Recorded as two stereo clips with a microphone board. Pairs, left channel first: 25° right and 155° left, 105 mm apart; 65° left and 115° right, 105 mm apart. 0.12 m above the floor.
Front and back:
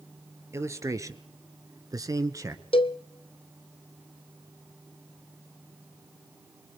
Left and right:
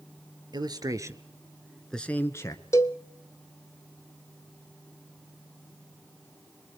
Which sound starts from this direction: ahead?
A cowbell, at 2.7 s.